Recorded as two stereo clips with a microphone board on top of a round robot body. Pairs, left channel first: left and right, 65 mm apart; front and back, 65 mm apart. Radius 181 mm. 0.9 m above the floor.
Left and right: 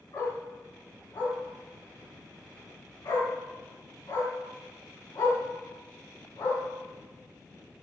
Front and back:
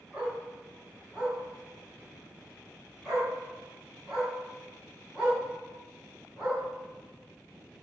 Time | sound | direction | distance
0.1 | a dog barking | 95° left | 3.5 m